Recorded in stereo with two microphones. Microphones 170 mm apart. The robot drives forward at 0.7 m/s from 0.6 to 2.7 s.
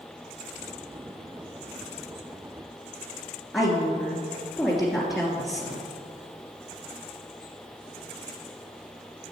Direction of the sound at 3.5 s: Centre (ahead or behind).